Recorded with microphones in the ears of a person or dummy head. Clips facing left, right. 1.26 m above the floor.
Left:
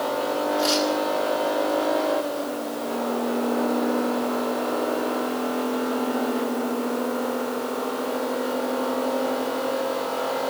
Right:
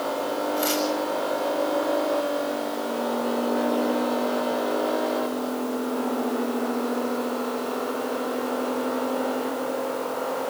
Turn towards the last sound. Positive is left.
turn(degrees=-20)  # may be behind; listen again after turning